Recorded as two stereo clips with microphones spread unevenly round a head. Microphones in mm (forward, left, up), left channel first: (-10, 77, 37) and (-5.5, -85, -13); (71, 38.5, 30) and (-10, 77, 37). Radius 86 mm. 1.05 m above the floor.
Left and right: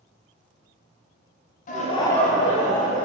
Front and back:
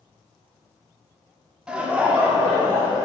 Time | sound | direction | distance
1.7 | laughter | 75° left | 0.5 m